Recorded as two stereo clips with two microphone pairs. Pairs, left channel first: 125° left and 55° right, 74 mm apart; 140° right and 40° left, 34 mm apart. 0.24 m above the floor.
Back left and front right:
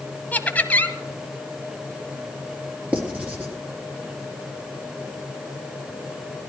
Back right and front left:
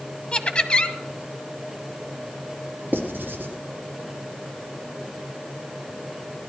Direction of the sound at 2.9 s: 20° left.